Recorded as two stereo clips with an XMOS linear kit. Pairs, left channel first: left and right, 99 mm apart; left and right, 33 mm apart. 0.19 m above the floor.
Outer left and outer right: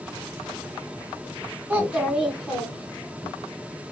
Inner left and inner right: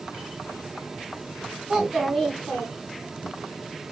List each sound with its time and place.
1.7 s a child speaking: 15° right (ahead or behind), 1.1 m; by 3.3 s 30° left (ahead or behind), 1.6 m